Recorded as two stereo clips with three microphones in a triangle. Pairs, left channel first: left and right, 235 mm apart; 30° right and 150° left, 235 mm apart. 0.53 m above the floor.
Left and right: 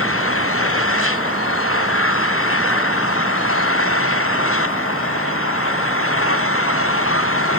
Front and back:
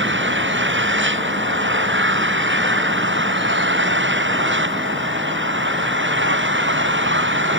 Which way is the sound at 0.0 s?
115° left.